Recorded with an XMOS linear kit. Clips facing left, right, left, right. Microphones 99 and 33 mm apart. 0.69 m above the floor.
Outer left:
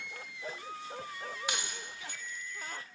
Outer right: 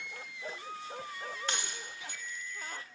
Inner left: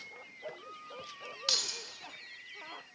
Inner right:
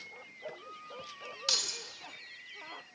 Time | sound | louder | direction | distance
1.5 | keys jangling | outer left 1 dB, even | 10° left (ahead or behind) | 1.0 m